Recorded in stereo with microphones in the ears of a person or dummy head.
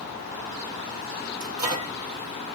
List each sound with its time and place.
1.4 s a microwave: 15° right (ahead or behind), 1.3 m